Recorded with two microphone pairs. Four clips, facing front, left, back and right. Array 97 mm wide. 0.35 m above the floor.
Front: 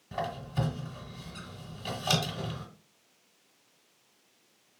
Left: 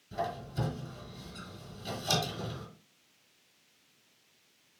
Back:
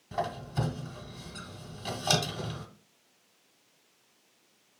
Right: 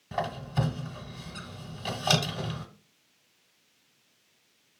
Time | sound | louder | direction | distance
0.1 | a squeak | right 4 dB, back 1 dB | 95° right | 1.2 m